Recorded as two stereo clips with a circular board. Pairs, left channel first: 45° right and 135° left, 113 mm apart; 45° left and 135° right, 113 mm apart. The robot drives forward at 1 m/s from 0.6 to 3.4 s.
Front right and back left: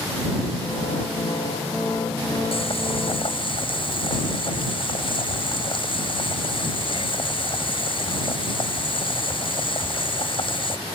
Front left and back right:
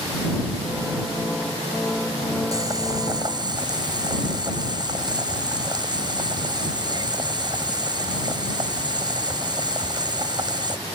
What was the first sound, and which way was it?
Boiling, 75° right.